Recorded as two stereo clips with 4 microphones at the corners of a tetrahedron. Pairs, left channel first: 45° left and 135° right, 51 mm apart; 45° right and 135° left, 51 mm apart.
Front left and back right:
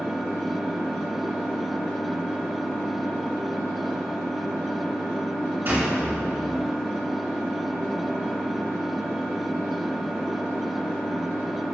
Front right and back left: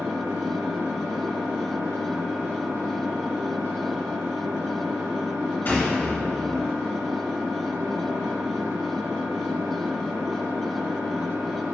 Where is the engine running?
135° left, 2.5 m.